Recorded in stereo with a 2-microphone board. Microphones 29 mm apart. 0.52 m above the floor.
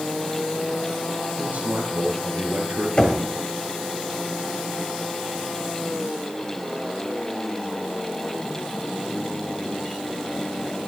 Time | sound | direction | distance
1.4 | a man speaking | 80° right | 7.5 m
3.0 | knocking | 35° left (ahead or behind) | 2 m